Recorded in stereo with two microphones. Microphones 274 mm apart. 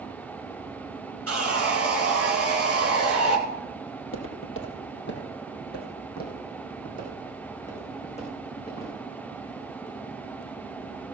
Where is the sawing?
55° right (ahead or behind), 2.5 m.